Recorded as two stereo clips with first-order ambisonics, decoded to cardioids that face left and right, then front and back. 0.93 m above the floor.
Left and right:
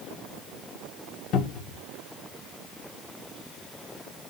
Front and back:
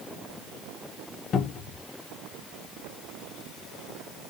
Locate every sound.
1.3 s a cupboard door: 55° left, 0.7 m